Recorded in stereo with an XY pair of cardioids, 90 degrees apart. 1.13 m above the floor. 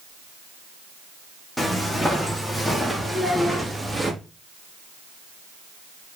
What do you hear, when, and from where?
1.6 s footsteps: 15° left, 3.5 m; by 4.1 s 15° right, 3 m
3.1 s a child speaking: 10° right, 4 m